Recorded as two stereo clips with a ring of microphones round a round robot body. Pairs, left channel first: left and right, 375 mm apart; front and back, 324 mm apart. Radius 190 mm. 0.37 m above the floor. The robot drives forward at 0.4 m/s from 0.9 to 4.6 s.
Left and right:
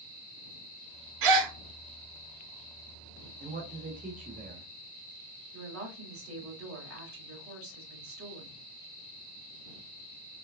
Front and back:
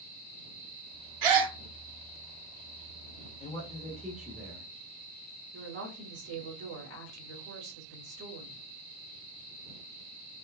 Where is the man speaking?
50° right, 1.0 m; by 4.7 s 120° right, 1.0 m.